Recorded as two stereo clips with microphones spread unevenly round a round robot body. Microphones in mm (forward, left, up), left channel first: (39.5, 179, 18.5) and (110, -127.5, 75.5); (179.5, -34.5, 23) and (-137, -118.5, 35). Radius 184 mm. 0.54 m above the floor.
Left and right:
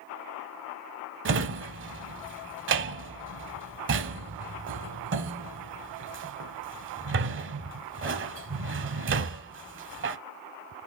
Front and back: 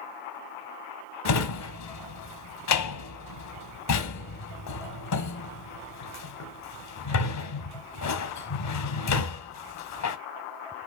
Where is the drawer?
25° right, 0.8 m.